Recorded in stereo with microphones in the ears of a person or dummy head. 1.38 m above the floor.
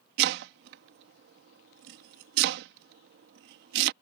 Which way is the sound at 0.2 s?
65° right (ahead or behind).